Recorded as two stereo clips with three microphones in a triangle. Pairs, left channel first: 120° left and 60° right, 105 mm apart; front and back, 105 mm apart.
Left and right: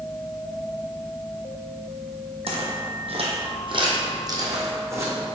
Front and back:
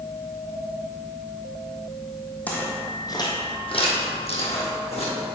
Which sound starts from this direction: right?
Footsteps, at 2.5 s.